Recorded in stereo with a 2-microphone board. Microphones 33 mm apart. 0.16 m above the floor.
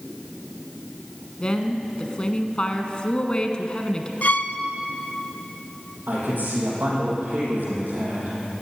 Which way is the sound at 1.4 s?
30° left (ahead or behind).